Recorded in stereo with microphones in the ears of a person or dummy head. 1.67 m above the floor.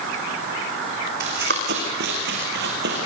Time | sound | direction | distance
1.2 | running footsteps | 60° right (ahead or behind) | 5.5 m